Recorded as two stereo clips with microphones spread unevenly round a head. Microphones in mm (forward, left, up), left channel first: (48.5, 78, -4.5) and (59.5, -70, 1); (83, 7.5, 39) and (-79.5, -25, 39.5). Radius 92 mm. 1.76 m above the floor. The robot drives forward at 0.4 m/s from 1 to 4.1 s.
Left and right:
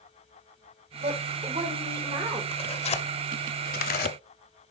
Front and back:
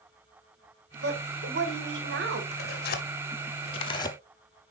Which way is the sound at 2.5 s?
40° left.